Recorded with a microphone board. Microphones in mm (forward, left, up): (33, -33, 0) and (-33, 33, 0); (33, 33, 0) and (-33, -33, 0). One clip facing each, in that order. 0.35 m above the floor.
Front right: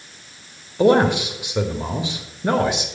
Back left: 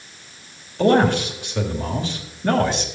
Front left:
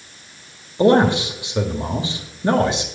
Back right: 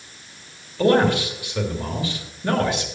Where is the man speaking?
10° left, 1.2 m.